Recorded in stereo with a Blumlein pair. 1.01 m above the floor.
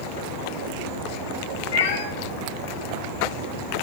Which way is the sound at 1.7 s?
60° left.